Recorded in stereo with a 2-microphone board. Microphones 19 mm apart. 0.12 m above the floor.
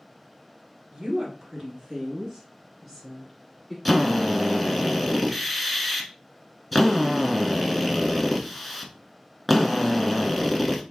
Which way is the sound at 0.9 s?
40° right (ahead or behind).